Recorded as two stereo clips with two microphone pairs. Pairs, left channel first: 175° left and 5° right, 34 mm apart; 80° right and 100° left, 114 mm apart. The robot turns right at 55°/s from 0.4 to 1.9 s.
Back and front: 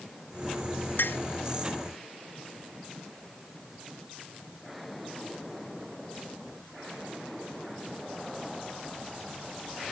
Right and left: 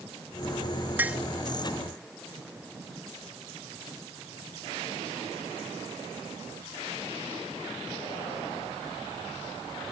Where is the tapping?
175° left; by 1.2 s 175° right.